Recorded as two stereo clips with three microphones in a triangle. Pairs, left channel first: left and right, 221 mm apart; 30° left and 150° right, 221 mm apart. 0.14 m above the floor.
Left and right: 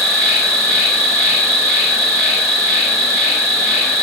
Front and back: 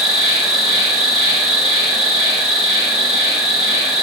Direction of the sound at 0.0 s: 170° left.